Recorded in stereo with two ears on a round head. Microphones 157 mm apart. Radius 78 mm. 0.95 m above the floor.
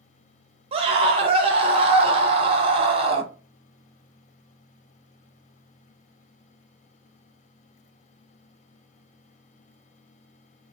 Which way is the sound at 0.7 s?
35° right (ahead or behind).